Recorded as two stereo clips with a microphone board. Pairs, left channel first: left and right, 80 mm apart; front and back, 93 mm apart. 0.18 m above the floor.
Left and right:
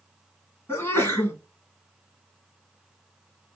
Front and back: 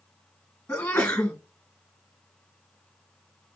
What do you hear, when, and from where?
0.7 s a sneeze: 65° left, 1.6 m